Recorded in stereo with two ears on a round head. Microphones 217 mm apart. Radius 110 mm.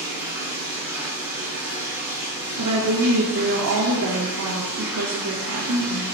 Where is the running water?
10° right (ahead or behind), 2.5 m.